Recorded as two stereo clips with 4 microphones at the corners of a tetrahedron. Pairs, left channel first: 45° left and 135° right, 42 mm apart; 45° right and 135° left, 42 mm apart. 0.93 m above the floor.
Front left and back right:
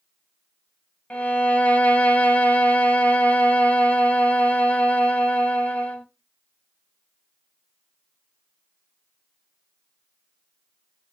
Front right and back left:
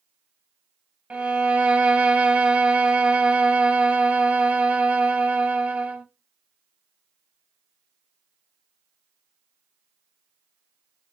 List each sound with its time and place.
1.1 s a violin: 90° left, 0.7 m